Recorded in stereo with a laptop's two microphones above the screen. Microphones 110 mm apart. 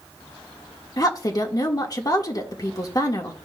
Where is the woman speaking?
35° left (ahead or behind), 1.2 m.